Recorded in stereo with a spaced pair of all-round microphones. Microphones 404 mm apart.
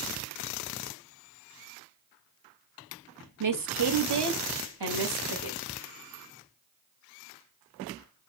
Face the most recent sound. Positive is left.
turn(degrees=-60)  # may be behind; listen again after turning